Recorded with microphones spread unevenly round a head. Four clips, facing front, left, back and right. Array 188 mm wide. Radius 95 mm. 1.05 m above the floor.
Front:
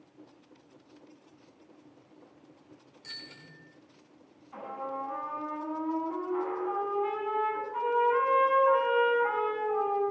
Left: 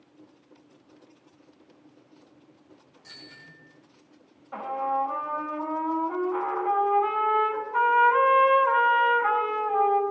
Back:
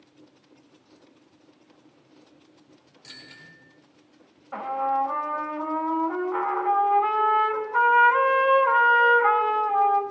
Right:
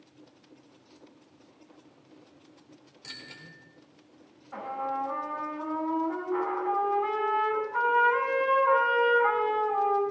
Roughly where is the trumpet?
Behind left.